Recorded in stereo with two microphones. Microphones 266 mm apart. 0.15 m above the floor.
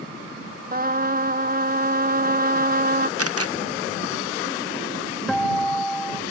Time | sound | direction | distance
0.7 | a trumpet | 35° right (ahead or behind) | ?
3.2 | a camera shutter | 60° right (ahead or behind) | ?
5.3 | a guitar | centre (ahead or behind) | ?